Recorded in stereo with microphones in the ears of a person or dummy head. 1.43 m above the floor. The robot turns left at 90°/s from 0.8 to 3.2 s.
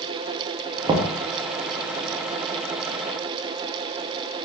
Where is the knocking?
25° right (ahead or behind), 0.5 m; by 1.1 s 5° right (ahead or behind), 0.5 m.